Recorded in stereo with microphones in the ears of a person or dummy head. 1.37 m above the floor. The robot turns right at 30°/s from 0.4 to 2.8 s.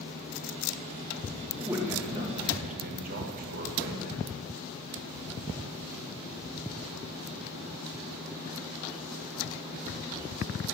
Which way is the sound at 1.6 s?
170° right.